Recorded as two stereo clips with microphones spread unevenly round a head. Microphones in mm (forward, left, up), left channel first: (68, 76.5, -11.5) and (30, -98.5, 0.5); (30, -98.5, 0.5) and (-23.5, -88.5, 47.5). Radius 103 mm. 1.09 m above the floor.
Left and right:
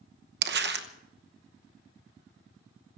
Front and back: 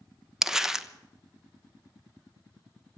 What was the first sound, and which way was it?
Crumpling, 85° right.